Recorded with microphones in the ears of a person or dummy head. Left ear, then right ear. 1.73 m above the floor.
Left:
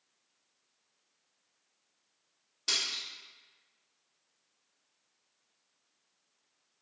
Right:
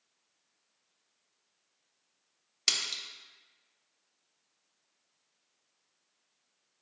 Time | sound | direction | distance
2.7 | a splash | 60° right (ahead or behind) | 0.5 m